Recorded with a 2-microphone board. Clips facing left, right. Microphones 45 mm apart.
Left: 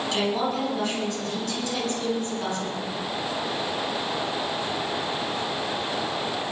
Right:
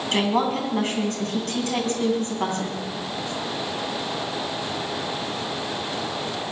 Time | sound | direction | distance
0.1 | a woman speaking | 50° right (ahead or behind) | 5 m